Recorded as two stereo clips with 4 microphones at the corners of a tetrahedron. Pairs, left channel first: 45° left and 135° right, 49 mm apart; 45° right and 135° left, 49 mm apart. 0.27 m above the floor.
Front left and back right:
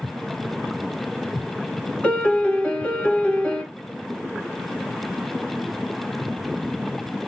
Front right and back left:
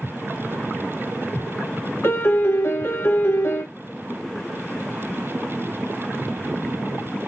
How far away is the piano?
About 0.9 m.